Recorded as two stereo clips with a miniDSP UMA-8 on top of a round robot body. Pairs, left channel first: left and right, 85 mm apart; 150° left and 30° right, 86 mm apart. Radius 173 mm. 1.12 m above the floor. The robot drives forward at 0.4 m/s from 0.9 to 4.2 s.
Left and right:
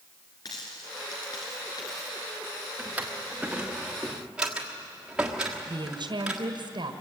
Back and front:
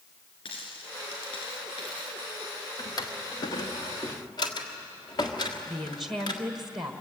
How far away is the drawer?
About 0.9 m.